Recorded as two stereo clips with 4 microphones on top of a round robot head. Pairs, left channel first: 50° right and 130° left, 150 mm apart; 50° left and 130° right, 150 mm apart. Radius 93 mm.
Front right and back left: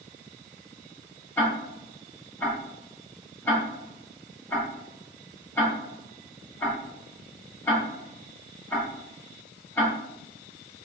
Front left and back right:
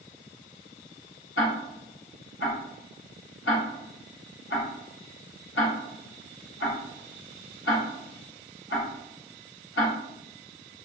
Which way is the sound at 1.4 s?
30° left.